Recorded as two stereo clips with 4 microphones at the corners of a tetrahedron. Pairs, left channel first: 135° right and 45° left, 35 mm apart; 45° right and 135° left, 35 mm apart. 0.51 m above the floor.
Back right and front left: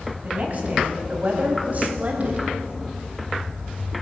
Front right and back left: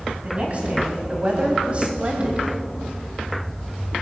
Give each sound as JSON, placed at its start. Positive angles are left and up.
{"t": 0.2, "sound": "a woman speaking", "azimuth_deg": 80, "distance_m": 4.0}